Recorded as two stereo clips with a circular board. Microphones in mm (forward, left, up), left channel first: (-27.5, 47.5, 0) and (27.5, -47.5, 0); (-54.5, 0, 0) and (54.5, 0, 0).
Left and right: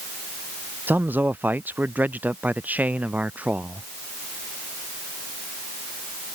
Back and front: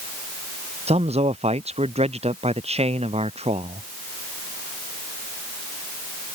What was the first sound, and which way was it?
A man speaking, 15° left.